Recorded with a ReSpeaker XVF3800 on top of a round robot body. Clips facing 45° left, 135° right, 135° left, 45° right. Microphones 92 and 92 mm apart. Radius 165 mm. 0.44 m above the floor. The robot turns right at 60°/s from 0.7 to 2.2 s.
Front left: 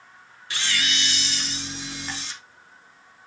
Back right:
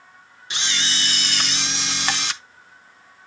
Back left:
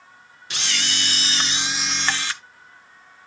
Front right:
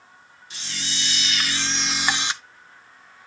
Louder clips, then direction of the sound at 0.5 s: Even, back left 6 dB; 155° left.